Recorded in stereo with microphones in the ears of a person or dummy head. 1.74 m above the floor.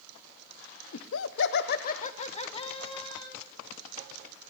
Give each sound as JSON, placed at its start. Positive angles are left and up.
{"t": 0.9, "sound": "laughter", "side_deg": 85, "distance_m": 0.7}